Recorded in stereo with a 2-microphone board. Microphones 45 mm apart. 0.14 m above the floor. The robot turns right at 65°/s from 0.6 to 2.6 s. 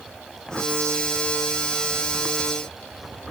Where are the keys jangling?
No keys jangling in this recording.